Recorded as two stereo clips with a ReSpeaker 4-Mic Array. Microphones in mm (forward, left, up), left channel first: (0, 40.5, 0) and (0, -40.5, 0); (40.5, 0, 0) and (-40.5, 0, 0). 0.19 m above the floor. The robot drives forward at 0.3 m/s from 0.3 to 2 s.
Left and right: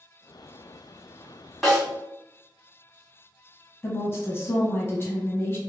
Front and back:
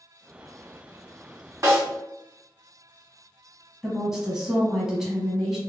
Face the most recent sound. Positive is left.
turn(degrees=100)